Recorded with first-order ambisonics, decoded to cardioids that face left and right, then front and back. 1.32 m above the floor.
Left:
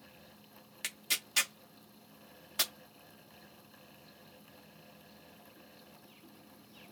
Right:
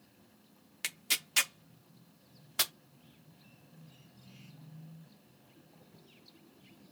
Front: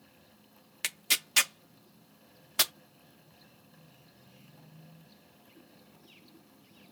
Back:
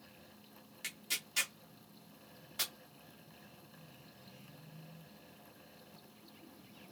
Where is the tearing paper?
15° right, 0.5 m.